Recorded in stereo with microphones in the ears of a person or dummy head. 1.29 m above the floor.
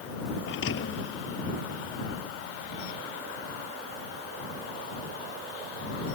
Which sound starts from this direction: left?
A thud, at 0.5 s.